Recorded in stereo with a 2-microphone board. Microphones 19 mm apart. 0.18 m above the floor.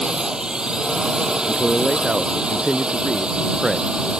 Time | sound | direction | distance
0.0 | a drone | 40° right (ahead or behind) | ?
1.4 | a man speaking | 35° right (ahead or behind) | ?